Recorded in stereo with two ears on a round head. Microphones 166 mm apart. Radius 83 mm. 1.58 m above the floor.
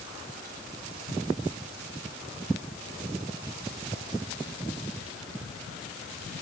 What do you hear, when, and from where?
Only background noise.